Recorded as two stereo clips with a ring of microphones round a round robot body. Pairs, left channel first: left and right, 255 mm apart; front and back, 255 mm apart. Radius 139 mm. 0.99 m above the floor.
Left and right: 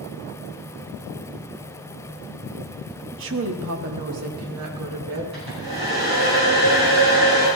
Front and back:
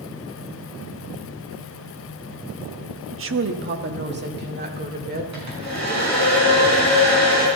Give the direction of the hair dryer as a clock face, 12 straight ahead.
5 o'clock.